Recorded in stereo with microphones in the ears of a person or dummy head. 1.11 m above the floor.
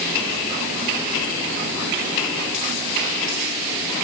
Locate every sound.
Only background noise.